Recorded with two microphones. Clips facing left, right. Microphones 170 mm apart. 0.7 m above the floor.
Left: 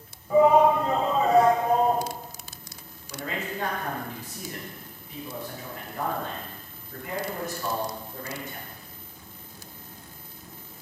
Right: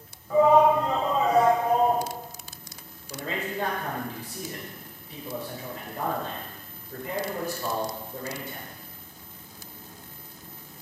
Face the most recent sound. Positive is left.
turn(degrees=-35)  # may be behind; listen again after turning